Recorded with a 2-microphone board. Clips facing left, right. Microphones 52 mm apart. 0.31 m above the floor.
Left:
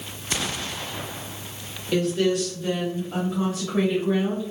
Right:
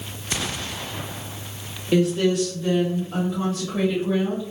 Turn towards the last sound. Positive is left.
turn(degrees=30)  # may be behind; listen again after turning